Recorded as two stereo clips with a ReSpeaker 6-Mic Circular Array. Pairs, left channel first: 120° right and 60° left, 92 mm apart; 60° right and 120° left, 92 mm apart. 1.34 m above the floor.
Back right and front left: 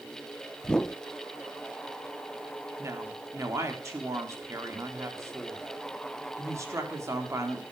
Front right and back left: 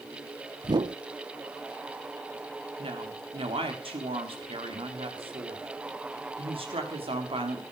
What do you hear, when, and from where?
0.6 s a whoosh: 160° left, 0.6 m
2.8 s a woman speaking: 115° left, 3.5 m